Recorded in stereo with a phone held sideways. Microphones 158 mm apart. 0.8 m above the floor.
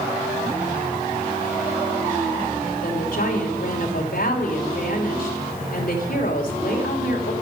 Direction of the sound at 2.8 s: 65° left (ahead or behind).